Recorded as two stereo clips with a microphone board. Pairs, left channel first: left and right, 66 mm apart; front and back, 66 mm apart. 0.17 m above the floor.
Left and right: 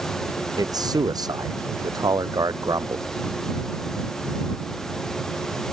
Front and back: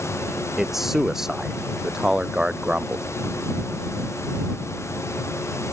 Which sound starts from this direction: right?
A man speaking, at 0.6 s.